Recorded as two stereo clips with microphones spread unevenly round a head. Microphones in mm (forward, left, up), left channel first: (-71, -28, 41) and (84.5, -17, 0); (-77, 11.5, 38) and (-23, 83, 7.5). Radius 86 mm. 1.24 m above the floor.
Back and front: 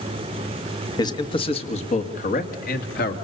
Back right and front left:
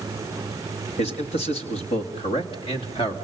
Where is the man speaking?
110° right, 1.8 m; by 3.1 s 150° right, 2.5 m.